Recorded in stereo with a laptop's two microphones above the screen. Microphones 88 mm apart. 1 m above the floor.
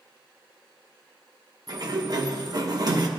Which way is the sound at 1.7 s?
50° right (ahead or behind).